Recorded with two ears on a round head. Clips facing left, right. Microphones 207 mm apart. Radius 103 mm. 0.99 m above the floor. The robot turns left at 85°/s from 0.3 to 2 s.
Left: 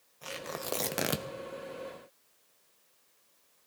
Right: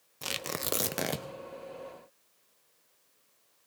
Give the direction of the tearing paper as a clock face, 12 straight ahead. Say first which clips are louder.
Right 1 dB; 4 o'clock.